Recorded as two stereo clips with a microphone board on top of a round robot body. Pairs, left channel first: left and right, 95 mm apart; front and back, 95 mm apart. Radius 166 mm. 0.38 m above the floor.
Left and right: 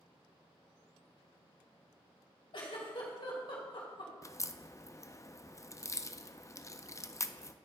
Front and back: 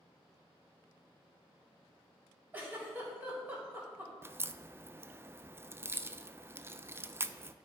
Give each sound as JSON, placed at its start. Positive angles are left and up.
{"t": 2.5, "sound": "a giggle", "azimuth_deg": 110, "distance_m": 2.5}
{"t": 4.2, "sound": "a crack", "azimuth_deg": 125, "distance_m": 0.6}